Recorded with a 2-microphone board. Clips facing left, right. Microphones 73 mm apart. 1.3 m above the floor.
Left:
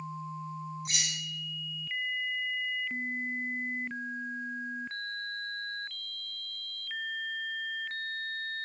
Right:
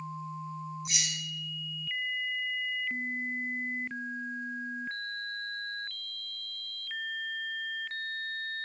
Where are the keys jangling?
50° left (ahead or behind), 0.6 m.